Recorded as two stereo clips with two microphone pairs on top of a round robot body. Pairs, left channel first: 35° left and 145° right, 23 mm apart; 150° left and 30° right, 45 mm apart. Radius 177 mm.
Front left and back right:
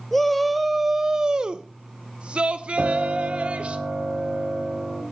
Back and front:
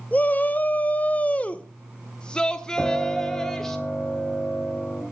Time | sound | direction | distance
0.1 | a shout | 115° left | 1.0 m
2.8 | a piano | 115° right | 3.5 m